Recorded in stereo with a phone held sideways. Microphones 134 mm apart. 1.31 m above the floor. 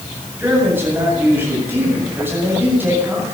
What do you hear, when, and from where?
0.4 s a man speaking: 15° right (ahead or behind), 8 m